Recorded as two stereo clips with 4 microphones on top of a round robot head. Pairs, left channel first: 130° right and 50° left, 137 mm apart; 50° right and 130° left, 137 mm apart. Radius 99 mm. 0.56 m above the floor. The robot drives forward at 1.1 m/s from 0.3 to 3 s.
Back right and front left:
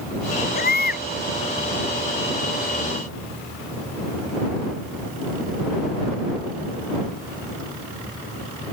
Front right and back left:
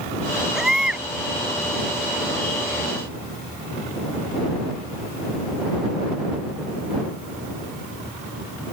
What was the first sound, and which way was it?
A baby crying, 140° right.